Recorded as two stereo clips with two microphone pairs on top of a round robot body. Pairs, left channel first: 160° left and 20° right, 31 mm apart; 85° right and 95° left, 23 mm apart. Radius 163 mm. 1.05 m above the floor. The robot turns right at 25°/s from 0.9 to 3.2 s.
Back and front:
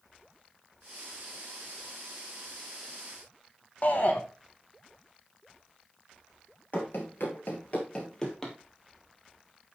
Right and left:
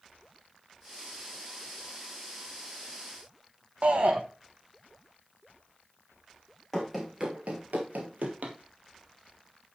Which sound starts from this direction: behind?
Running footsteps, at 6.7 s.